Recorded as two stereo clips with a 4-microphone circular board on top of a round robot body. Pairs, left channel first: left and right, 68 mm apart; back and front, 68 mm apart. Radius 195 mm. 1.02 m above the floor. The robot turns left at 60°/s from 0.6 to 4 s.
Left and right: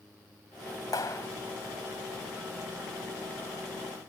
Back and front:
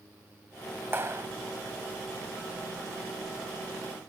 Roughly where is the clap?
Ahead left.